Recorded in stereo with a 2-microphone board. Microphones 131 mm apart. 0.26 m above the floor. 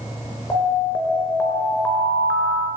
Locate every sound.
0.5 s an alarm: 20° left (ahead or behind), 4.5 m